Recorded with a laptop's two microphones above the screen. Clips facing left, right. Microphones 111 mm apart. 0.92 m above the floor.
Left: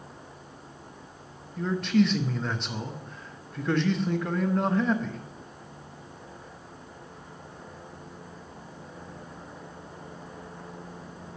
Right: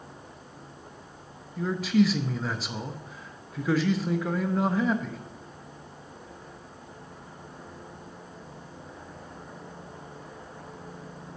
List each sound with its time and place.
1.6 s a man speaking: 5° right (ahead or behind), 0.6 m